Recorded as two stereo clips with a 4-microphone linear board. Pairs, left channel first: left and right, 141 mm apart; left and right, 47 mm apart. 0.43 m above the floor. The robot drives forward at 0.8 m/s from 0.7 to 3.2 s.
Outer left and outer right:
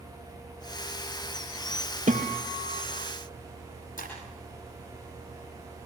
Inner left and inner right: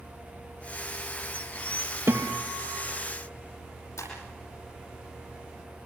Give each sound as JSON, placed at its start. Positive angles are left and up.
{"t": 2.1, "sound": "a guitar", "side_deg": -65, "distance_m": 3.0}
{"t": 4.0, "sound": "breaking glass", "side_deg": 75, "distance_m": 9.5}